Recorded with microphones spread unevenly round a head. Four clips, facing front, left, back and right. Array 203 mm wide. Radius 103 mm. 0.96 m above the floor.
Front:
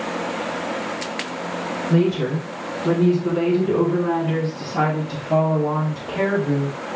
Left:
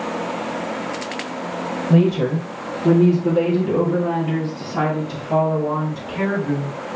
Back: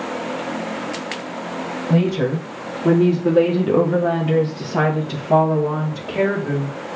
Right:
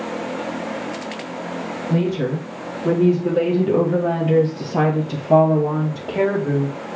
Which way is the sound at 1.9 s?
125° left.